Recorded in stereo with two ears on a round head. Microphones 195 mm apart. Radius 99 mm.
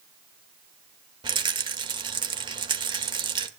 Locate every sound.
1.2 s a rattle: 25° right (ahead or behind), 1.5 m